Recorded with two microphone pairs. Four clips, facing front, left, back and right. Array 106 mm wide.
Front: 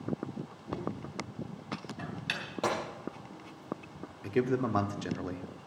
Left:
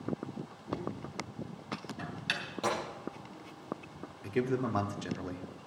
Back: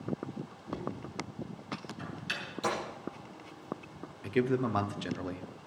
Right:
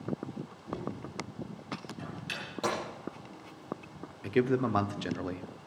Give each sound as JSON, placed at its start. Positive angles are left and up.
{"t": 0.7, "sound": "knocking", "azimuth_deg": 50, "distance_m": 3.0}
{"t": 2.6, "sound": "a gunshot", "azimuth_deg": -10, "distance_m": 6.5}
{"t": 4.2, "sound": "a man speaking", "azimuth_deg": -60, "distance_m": 0.7}